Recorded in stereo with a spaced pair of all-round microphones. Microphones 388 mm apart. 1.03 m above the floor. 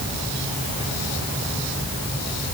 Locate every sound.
Only background noise.